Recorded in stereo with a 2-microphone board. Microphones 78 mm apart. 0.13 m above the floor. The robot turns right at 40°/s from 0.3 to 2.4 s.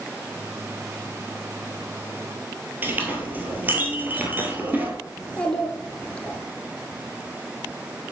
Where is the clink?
25° right (ahead or behind), 1.7 m.